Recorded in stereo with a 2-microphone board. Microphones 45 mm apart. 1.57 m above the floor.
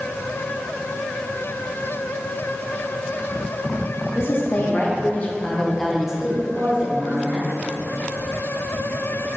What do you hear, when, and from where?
4.2 s a woman speaking: 60° left (ahead or behind), 2.5 m; by 7.5 s 50° right (ahead or behind), 2.5 m